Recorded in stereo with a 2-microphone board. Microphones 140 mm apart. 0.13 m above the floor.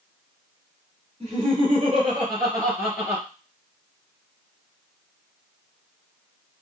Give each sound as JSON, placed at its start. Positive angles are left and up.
{"t": 1.2, "sound": "laughter", "side_deg": -50, "distance_m": 1.9}